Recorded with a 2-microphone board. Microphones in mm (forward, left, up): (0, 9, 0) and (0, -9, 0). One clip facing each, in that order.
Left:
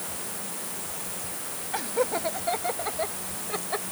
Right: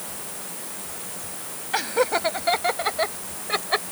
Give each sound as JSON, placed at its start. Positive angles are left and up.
{"t": 1.7, "sound": "laughter", "side_deg": -40}